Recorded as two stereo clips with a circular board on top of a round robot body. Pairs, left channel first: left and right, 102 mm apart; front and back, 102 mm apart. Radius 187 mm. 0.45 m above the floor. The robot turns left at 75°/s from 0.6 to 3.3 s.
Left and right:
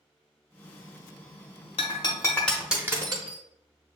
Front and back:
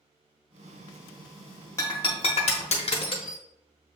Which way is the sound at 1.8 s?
65° left.